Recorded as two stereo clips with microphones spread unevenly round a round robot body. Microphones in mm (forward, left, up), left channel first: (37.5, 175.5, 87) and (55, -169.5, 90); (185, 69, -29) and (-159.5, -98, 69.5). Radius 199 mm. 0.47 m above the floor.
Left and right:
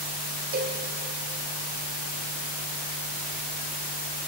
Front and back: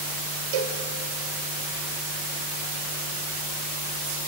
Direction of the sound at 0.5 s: 150° right.